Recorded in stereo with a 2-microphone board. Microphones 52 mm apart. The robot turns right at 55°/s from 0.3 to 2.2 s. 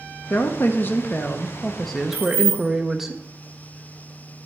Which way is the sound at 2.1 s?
35° right (ahead or behind).